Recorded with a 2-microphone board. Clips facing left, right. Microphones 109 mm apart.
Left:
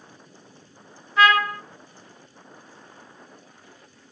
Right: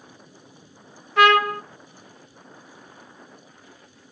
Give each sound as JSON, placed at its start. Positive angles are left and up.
{"t": 1.2, "sound": "a trumpet", "side_deg": -70, "distance_m": 0.6}